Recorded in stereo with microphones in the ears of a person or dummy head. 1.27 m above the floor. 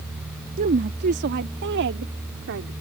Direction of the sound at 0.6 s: 40° right (ahead or behind).